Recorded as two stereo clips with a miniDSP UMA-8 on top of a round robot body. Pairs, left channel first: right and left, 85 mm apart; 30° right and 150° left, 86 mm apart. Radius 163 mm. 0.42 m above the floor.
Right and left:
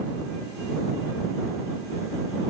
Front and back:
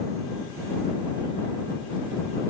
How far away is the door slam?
No door slam in this recording.